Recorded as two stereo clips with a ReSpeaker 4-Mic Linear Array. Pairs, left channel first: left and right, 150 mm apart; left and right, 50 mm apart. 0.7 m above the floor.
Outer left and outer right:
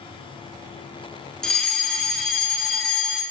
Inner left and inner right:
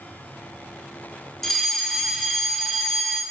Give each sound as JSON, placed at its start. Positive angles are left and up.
{"t": 1.4, "sound": "a fire alarm", "side_deg": 5, "distance_m": 2.5}